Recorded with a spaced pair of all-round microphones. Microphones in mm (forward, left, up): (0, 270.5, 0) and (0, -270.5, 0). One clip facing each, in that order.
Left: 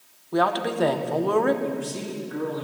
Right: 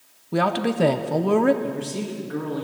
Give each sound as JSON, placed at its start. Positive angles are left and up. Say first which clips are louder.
{"t": 0.3, "sound": "a woman speaking", "louder": "right 2 dB", "side_deg": -50, "distance_m": 0.7}
{"t": 1.6, "sound": "a man speaking", "louder": "right 1 dB", "side_deg": -80, "distance_m": 1.8}